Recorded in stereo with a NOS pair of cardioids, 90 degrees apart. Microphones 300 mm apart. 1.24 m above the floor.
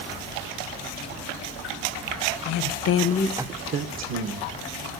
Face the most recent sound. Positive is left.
turn(degrees=-70)